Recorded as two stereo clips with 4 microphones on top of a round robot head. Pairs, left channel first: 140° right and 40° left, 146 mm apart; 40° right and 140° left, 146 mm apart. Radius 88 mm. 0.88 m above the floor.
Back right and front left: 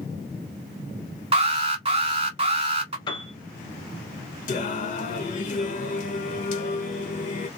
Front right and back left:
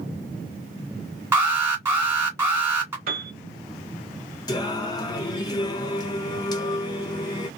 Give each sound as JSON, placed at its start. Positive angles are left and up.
{"t": 1.3, "sound": "an alarm", "azimuth_deg": 70, "distance_m": 1.9}
{"t": 3.1, "sound": "a piano", "azimuth_deg": 165, "distance_m": 1.1}
{"t": 4.5, "sound": "singing", "azimuth_deg": -105, "distance_m": 0.9}